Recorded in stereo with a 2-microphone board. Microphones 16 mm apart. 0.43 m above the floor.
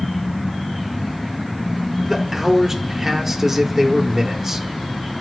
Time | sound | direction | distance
2.1 | a man speaking | 20° right (ahead or behind) | 1.5 m